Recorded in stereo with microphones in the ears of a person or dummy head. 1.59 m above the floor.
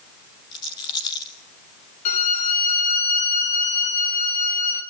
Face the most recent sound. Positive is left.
turn(degrees=45)  # may be behind; listen again after turning